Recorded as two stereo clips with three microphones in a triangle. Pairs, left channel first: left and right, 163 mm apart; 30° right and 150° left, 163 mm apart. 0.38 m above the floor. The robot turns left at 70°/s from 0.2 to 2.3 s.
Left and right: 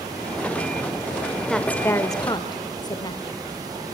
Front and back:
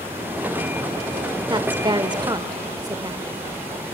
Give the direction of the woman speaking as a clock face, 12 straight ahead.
6 o'clock.